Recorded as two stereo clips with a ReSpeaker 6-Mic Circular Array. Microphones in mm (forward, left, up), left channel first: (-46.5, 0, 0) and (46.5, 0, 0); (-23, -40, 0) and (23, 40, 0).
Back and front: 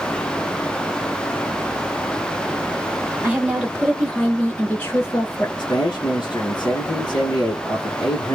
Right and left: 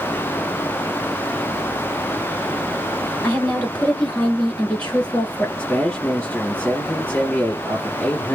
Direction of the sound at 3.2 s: 55° right.